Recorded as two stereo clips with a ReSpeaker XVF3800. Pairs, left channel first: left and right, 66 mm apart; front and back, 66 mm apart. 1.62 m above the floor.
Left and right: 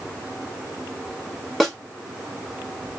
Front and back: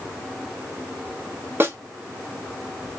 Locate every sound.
1.6 s a snare drum: straight behind, 1.3 m